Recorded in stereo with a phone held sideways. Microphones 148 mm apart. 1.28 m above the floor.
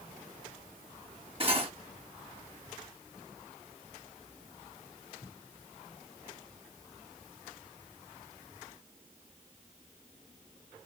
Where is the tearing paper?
I don't hear tearing paper.